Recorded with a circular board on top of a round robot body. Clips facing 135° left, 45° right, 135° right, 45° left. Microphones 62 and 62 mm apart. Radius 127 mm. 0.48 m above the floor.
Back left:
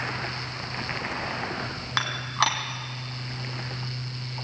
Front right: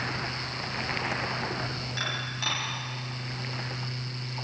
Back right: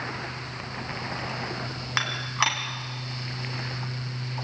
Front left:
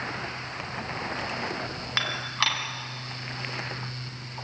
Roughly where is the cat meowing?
I don't hear a cat meowing.